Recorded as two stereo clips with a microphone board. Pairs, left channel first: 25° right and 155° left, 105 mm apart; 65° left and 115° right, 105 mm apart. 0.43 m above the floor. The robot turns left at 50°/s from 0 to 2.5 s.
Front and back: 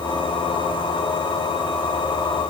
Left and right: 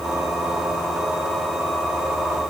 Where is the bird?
I don't hear a bird.